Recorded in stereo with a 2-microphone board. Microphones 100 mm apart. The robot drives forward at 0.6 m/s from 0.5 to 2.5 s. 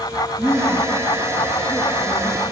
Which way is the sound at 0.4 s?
Centre (ahead or behind).